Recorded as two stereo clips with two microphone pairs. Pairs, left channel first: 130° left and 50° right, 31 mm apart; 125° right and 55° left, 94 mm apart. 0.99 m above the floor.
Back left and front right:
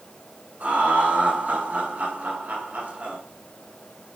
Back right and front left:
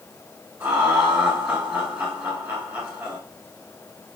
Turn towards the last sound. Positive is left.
turn(degrees=-10)